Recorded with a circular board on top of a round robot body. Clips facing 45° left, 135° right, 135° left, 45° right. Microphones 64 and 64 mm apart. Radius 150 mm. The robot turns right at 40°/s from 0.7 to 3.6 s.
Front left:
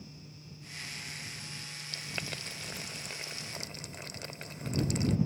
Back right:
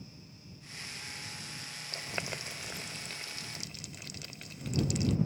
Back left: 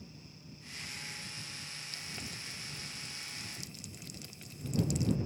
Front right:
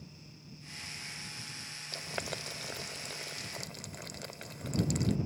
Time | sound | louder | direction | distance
1.9 | boiling | back right 2 dB, front right 9 dB | 80° right | ?